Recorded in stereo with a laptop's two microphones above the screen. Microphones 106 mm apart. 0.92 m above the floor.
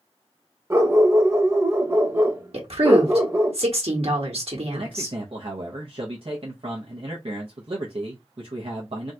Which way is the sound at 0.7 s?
25° right (ahead or behind).